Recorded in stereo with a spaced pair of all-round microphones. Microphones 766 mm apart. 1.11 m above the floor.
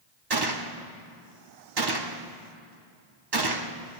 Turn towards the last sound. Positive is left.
turn(degrees=-30)  # may be behind; listen again after turning